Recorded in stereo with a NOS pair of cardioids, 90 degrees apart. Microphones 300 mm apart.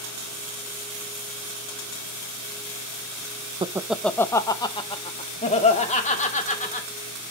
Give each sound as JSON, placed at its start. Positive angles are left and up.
{"t": 3.6, "sound": "laughter", "azimuth_deg": -15, "distance_m": 0.5}